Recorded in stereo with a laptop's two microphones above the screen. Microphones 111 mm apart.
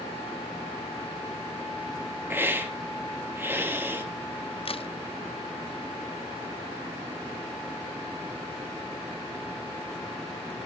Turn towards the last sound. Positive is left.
turn(degrees=55)  # may be behind; listen again after turning